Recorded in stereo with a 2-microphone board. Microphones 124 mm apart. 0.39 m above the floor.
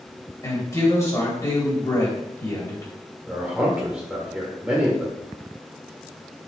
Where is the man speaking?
10° right (ahead or behind), 1.1 m.